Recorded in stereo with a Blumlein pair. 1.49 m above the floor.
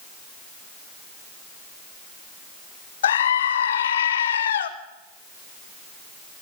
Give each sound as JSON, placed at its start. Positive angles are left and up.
{"t": 3.0, "sound": "a scream", "azimuth_deg": 65, "distance_m": 2.0}